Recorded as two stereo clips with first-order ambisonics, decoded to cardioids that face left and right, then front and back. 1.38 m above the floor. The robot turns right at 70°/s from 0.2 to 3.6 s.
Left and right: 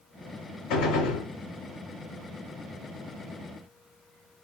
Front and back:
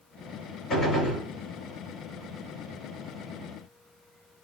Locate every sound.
0.7 s a gunshot: 70° left, 2.5 m; by 1.3 s 110° left, 2.5 m